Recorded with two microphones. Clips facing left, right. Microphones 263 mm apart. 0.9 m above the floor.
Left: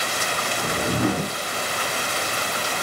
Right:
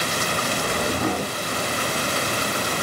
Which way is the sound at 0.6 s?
25° left (ahead or behind).